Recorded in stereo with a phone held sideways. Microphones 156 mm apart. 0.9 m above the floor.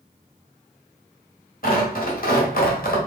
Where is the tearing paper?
65° left (ahead or behind), 1.3 m.